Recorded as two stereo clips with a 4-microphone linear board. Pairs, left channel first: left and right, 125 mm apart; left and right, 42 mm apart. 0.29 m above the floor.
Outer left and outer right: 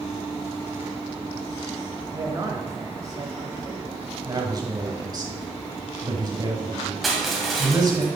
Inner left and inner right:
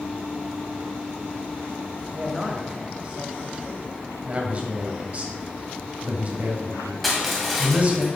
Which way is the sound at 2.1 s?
30° right (ahead or behind).